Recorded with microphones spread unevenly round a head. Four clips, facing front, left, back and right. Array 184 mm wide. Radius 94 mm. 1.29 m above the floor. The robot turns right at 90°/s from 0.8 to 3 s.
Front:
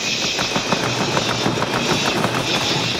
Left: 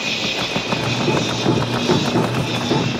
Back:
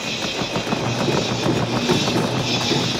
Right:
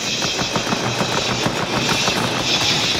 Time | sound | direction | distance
0.0 | an insect | 65° left | 1.8 m